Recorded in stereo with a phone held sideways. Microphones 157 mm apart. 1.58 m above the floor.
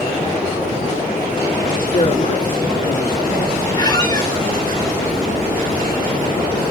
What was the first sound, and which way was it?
A man speaking, 50° left (ahead or behind).